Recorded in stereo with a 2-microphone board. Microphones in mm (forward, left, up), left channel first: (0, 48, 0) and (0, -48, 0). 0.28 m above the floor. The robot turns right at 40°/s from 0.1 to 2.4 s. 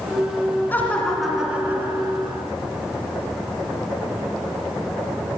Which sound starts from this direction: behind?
Laughter, at 0.7 s.